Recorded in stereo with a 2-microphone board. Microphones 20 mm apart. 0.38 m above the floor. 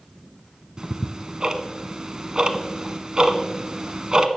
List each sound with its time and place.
0.8 s ticking: 40° right (ahead or behind), 0.6 m